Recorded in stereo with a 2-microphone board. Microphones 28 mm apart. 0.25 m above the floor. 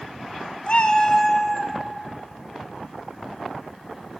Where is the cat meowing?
45° left (ahead or behind), 0.6 m; by 1.8 s centre (ahead or behind), 0.8 m.